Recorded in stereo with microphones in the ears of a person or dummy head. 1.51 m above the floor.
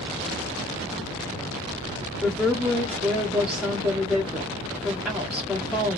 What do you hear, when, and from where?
2.2 s a woman speaking: 5° right (ahead or behind), 0.7 m